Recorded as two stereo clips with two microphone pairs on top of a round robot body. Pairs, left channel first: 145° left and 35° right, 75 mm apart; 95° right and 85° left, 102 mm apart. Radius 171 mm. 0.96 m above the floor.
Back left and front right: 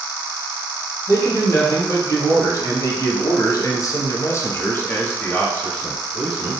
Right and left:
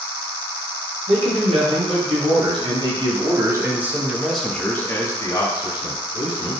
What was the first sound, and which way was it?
A man speaking, 100° left.